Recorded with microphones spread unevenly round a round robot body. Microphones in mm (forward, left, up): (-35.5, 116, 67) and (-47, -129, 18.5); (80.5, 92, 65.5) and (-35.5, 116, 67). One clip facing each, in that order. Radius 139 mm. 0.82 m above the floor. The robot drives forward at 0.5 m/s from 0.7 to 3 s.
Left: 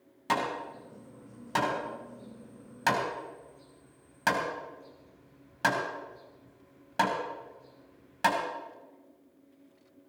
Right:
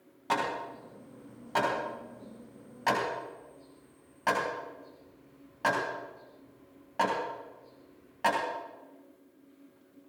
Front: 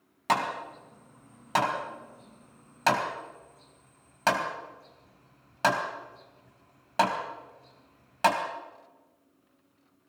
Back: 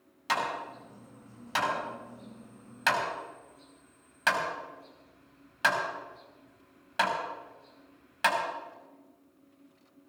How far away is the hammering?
About 4 m.